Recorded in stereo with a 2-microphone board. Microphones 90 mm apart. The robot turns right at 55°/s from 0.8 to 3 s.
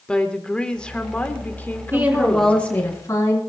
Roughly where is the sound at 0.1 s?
Centre.